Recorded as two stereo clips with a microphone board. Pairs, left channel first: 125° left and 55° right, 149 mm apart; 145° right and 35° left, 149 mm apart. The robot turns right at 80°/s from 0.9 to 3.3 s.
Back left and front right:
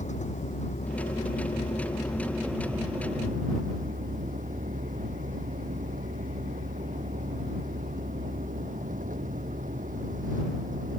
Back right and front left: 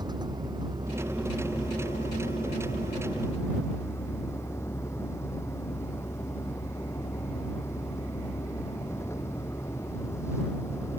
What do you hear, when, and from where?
0.0 s a vehicle: 95° left; by 11.0 s 75° right